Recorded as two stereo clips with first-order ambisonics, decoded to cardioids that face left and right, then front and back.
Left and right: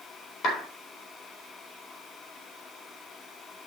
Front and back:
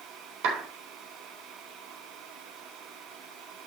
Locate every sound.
0.4 s a clap: 145° left, 3.5 m